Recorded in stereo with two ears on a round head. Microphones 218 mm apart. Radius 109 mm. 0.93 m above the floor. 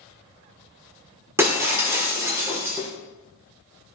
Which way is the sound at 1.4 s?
10° right (ahead or behind).